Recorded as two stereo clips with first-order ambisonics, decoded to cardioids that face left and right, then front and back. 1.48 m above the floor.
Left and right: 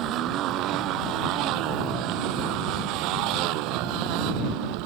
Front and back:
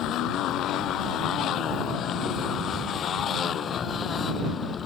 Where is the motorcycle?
45° right; by 4.9 s 65° right.